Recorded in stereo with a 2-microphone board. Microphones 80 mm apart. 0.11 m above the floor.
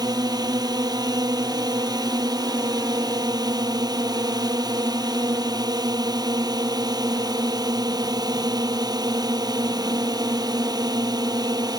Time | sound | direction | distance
0.0 | a drone | 55° right (ahead or behind) | ?